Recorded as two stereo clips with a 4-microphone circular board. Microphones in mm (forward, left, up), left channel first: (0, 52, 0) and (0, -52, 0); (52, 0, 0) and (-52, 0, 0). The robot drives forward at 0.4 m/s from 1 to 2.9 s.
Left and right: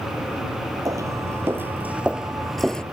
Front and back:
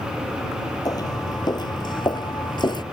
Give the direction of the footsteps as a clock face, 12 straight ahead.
1 o'clock.